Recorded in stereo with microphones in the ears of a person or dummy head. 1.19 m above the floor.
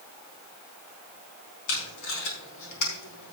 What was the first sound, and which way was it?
Tape being pulled, 80° left.